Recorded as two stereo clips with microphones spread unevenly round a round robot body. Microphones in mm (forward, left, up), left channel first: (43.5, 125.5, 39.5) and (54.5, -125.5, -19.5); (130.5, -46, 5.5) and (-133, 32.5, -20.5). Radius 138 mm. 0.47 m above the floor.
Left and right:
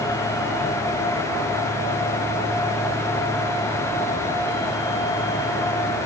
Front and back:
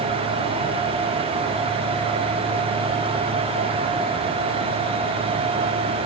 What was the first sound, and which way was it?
Only background noise.